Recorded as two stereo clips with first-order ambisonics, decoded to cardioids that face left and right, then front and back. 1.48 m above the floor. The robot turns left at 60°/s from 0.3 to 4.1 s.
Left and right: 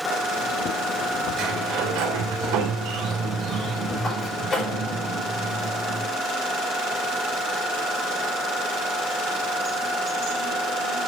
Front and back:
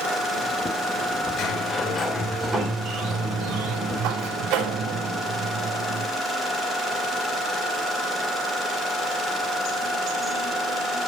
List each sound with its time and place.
1.4 s a sliding door: 40° right, 4 m; by 6.1 s 160° left, 4 m